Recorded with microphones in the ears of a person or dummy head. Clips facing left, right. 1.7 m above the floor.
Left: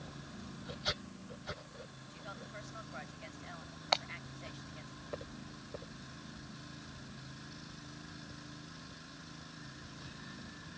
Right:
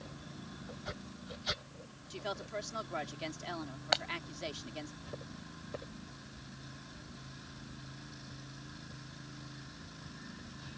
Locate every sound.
2.1 s a woman speaking: 85° right
3.9 s breaking glass: 10° right (ahead or behind)